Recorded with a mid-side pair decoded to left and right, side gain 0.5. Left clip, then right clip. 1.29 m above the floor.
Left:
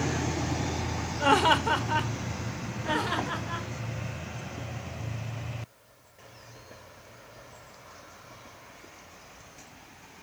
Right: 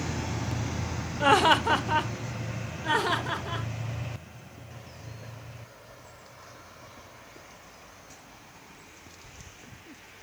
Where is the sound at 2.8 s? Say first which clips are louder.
Right 3 dB; 60° right, 4 m.